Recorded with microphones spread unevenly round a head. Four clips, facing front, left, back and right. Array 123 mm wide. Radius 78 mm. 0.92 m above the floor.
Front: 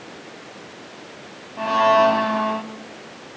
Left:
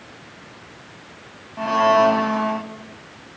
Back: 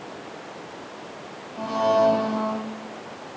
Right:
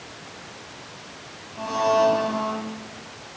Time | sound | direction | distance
1.6 | a blender | 35° left | 2 m